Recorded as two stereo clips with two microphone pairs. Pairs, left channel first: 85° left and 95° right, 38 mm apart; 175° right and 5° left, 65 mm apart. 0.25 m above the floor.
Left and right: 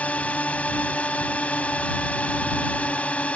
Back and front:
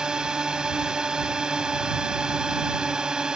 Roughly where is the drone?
Left.